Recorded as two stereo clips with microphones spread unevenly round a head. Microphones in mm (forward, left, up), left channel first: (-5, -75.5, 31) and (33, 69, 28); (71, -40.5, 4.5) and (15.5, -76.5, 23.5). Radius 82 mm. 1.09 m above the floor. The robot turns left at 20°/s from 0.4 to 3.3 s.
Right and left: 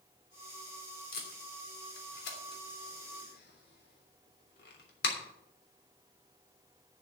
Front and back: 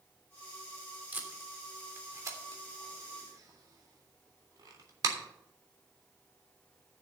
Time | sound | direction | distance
1.1 | tape being pulled | 85° right | 3 m